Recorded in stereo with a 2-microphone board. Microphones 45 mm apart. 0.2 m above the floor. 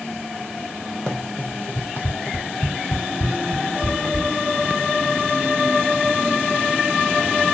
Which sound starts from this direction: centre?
Running footsteps, at 1.1 s.